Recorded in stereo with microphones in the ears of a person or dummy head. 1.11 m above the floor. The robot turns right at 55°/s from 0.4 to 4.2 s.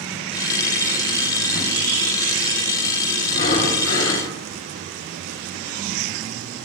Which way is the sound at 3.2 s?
50° left.